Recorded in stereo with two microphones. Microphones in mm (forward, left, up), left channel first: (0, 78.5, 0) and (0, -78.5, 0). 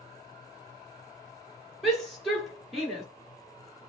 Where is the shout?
Centre (ahead or behind), 2.0 m.